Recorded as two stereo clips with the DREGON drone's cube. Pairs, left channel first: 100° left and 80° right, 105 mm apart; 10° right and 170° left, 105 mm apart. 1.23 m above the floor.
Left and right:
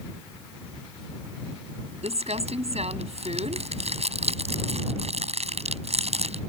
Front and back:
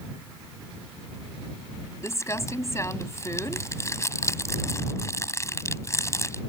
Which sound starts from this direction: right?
Crumpling, at 2.0 s.